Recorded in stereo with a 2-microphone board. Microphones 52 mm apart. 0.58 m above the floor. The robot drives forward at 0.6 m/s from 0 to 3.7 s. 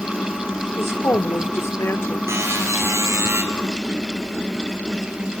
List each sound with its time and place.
0.8 s a woman speaking: 55° left (ahead or behind), 1.9 m
2.3 s a buzzer: 60° right (ahead or behind), 5 m; by 3.4 s 50° right (ahead or behind), 5.5 m